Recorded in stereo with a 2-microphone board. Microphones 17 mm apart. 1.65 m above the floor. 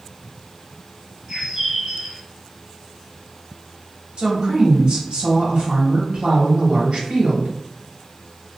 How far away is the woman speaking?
About 1.5 m.